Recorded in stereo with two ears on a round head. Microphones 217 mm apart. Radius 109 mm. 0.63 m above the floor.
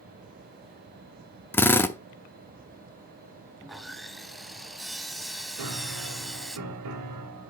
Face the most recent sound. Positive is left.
turn(degrees=-80)